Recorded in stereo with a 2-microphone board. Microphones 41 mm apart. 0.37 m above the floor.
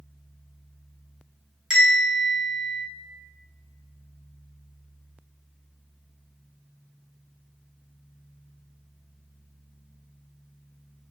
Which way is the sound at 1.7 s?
15° right (ahead or behind).